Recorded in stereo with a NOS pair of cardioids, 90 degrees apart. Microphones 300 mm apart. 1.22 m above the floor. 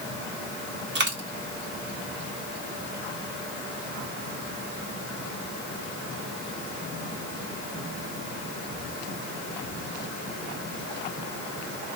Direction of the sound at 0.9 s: 40° right.